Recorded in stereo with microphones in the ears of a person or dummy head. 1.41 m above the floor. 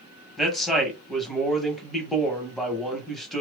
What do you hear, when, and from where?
0.4 s a man speaking: centre (ahead or behind), 1.2 m